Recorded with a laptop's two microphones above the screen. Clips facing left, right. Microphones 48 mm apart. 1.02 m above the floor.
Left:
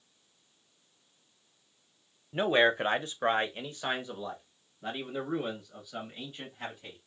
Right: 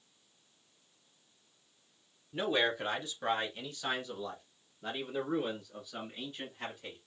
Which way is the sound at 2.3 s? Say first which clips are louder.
Left 6 dB; 35° left (ahead or behind).